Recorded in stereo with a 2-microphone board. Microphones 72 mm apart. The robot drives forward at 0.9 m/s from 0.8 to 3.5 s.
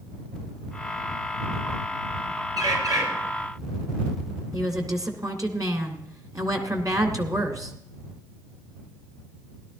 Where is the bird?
60° right (ahead or behind), 3.5 m; by 3.0 s 55° right (ahead or behind), 4 m.